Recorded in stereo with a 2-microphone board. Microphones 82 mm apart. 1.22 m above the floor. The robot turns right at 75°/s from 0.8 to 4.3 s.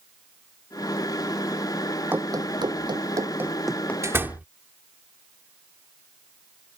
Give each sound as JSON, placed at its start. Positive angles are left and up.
{"t": 2.1, "sound": "running footsteps", "side_deg": -25}
{"t": 4.0, "sound": "a door slam", "side_deg": -40}